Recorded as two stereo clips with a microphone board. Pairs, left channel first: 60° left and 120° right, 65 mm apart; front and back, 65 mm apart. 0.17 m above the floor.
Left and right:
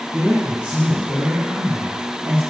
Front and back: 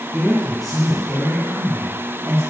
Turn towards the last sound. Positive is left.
turn(degrees=-160)